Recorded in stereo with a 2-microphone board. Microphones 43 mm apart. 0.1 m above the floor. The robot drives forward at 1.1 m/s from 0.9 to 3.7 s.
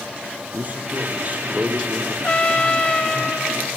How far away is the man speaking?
About 3.5 m.